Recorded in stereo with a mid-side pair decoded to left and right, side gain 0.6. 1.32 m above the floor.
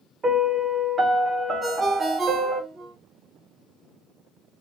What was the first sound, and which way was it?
A piano, 30° right.